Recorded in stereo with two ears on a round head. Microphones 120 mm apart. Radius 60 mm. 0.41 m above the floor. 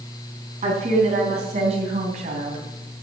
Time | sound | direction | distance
0.6 | a woman speaking | 55° right (ahead or behind) | 3.5 m